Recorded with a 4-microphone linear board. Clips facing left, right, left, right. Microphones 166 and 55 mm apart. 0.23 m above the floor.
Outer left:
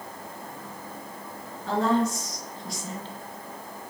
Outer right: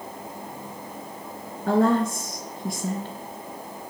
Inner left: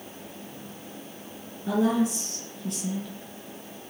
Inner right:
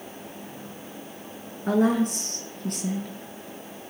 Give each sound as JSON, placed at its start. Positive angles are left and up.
{"t": 1.7, "sound": "a woman speaking", "side_deg": -55, "distance_m": 3.5}